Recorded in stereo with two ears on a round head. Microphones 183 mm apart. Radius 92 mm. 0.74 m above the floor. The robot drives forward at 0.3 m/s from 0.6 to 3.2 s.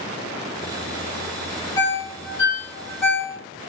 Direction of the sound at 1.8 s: 20° left (ahead or behind).